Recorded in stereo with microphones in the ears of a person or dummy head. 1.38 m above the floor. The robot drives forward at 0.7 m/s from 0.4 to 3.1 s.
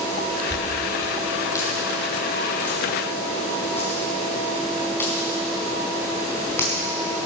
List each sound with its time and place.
0.5 s a dropped coin: 20° left (ahead or behind), 2 m; by 6.7 s 10° left (ahead or behind), 4 m